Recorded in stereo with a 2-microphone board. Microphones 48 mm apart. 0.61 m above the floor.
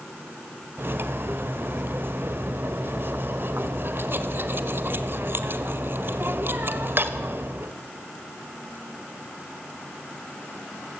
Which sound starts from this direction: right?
Cutlery clinking, at 0.8 s.